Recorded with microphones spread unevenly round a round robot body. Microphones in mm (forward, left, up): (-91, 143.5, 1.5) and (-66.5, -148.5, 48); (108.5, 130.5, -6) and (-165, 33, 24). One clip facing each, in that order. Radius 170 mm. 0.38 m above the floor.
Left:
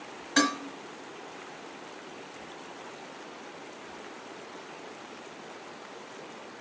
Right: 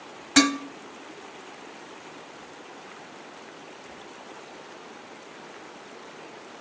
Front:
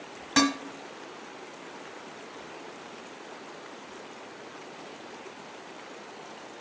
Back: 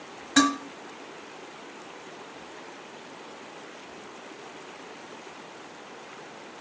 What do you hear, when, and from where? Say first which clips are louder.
0.4 s dishes clattering: right 7 dB, back 3 dB; 50° right, 1.4 m